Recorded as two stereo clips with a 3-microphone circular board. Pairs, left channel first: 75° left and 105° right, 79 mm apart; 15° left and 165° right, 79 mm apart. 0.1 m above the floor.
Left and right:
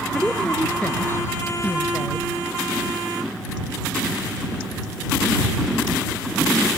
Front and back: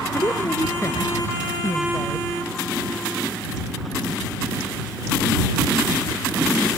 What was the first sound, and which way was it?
A woman speaking, 5° right.